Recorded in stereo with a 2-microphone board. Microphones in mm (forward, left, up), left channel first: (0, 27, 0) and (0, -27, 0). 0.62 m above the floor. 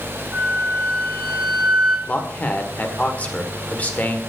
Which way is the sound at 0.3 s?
15° right (ahead or behind).